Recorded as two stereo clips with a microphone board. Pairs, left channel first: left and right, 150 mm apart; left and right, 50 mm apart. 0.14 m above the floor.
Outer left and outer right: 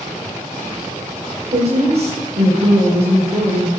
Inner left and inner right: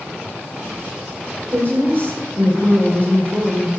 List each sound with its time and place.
1.5 s a woman speaking: 45° right (ahead or behind), 4 m